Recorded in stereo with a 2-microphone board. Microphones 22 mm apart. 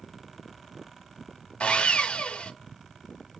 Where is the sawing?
55° left (ahead or behind), 0.6 m.